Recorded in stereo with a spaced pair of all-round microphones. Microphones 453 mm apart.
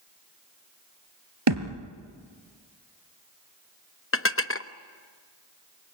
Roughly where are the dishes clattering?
Left.